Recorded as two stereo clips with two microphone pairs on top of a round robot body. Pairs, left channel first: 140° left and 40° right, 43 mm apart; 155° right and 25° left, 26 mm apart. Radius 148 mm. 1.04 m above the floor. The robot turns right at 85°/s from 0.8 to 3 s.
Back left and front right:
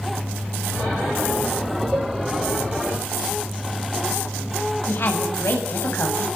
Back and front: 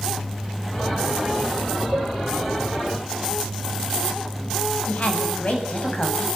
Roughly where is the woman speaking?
Behind.